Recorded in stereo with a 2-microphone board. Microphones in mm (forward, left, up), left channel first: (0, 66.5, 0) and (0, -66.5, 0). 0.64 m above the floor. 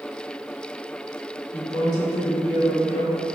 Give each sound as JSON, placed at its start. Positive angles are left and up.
{"t": 1.5, "sound": "a woman speaking", "side_deg": 20, "distance_m": 0.7}